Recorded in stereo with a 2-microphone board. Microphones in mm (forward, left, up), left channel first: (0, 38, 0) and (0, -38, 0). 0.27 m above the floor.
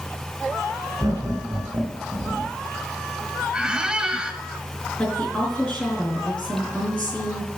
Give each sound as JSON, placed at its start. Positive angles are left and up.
{"t": 1.0, "sound": "laughter", "side_deg": -50, "distance_m": 3.5}
{"t": 3.5, "sound": "a squeak", "side_deg": -10, "distance_m": 0.9}
{"t": 5.0, "sound": "a woman speaking", "side_deg": 15, "distance_m": 4.0}